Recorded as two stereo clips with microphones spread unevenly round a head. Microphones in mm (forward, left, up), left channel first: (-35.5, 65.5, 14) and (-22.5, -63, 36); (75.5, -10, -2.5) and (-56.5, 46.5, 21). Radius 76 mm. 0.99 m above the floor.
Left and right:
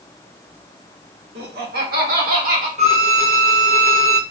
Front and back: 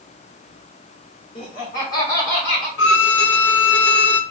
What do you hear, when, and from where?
1.4 s laughter: 80° right, 2.5 m; by 2.7 s 105° right, 3 m
2.8 s a violin: 40° right, 0.5 m